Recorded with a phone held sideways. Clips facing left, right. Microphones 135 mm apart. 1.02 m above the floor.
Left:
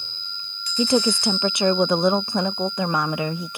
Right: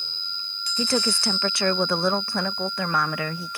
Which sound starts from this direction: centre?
A woman speaking, at 0.8 s.